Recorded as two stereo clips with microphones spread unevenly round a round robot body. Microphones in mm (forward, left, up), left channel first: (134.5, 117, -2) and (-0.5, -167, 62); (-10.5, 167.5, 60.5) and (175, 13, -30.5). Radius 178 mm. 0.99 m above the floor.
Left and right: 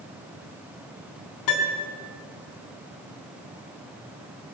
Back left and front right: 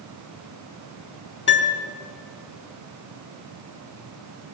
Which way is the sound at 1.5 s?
105° left.